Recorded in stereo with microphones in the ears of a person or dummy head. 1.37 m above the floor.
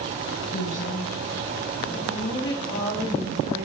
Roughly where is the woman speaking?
Left.